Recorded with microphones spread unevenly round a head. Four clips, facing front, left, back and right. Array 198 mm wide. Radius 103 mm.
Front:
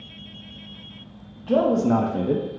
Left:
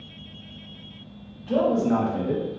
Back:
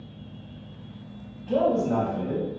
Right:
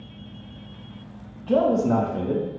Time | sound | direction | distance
1.5 | a man speaking | 40° right | 1.1 m